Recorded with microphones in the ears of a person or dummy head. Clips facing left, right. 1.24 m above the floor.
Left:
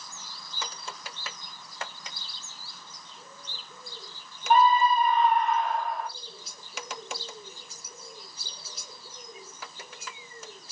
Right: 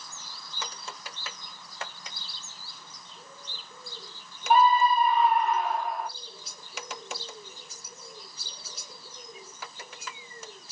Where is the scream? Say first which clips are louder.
Even; 5° right (ahead or behind), 3 m.